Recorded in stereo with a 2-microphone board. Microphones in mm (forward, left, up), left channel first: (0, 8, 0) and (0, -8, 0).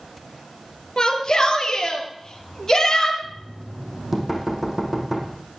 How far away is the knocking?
About 4.5 m.